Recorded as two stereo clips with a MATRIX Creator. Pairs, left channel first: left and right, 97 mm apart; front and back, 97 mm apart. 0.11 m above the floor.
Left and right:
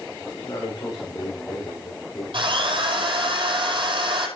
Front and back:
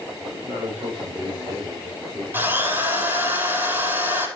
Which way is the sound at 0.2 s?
140° left.